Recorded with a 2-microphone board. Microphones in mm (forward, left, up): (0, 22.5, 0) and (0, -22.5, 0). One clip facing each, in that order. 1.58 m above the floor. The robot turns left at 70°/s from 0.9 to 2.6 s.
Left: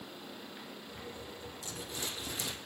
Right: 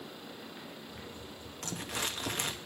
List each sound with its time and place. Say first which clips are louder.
1.6 s crumpling: right 6 dB; 60° right, 0.7 m; by 2.5 s 130° right, 0.7 m